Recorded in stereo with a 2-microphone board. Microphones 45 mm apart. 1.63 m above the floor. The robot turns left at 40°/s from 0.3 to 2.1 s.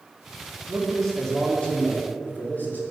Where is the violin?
No violin in this recording.